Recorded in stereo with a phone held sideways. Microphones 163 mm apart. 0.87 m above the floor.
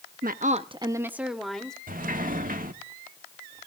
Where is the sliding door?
60° right (ahead or behind), 1.4 m.